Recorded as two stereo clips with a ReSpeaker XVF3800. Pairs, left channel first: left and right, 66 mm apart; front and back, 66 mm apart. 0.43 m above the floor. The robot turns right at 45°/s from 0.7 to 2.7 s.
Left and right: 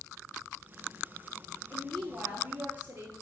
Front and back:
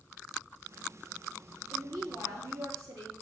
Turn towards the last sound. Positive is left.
turn(degrees=-150)